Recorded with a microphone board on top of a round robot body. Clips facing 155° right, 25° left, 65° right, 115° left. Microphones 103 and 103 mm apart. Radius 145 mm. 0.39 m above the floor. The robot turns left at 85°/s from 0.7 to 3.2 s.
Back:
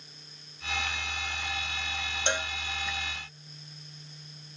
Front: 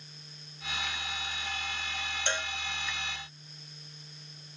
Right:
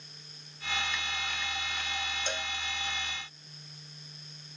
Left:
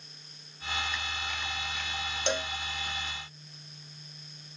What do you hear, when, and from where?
2.3 s a cowbell: 130° left; by 2.5 s 110° left